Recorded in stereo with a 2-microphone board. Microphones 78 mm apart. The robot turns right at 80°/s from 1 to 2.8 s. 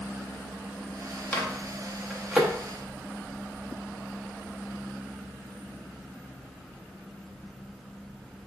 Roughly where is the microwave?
Left.